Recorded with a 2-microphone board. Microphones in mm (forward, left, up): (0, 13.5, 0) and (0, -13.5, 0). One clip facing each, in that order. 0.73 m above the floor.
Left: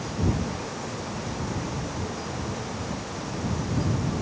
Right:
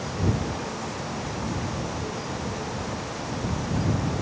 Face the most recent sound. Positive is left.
No sound to turn to.